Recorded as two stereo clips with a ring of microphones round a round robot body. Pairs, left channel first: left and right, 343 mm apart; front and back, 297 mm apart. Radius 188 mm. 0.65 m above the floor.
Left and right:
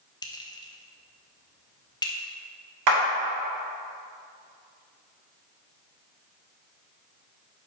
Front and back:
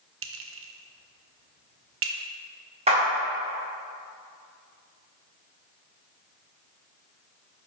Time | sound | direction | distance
0.2 | a clink | 165° left | 0.7 m
2.9 | a clap | 110° right | 1.6 m